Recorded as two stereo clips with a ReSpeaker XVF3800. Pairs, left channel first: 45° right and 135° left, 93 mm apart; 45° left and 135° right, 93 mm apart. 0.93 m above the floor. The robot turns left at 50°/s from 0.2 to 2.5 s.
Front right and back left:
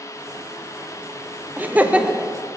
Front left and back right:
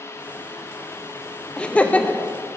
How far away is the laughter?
About 0.7 m.